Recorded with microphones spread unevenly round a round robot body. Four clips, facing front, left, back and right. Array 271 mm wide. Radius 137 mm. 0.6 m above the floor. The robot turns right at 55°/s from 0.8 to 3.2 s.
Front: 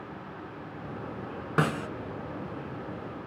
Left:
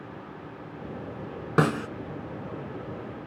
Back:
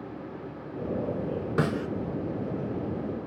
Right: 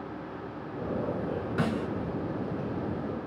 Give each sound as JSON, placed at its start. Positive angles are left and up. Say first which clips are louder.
{"t": 1.6, "sound": "a snare drum", "louder": "left 8 dB, front 1 dB", "azimuth_deg": 70, "distance_m": 1.2}